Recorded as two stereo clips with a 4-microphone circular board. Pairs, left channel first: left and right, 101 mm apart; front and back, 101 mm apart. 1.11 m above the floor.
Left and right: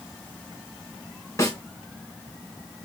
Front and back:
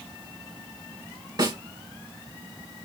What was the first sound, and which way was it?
A snare drum, 145° left.